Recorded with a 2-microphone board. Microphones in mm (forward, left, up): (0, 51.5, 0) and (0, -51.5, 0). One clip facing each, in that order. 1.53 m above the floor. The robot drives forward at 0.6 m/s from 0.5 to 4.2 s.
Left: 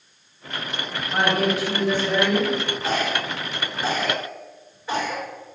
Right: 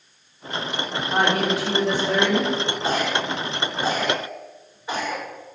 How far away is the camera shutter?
I don't hear a camera shutter.